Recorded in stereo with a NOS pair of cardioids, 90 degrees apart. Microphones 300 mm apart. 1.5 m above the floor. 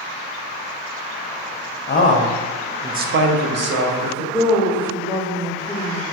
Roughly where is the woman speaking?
Ahead.